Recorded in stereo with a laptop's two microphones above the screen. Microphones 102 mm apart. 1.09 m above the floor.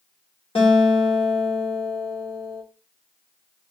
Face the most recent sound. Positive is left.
turn(degrees=75)  # may be behind; listen again after turning